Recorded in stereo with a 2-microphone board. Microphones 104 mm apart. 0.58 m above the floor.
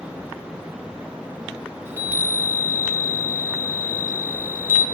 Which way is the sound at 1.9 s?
20° right (ahead or behind).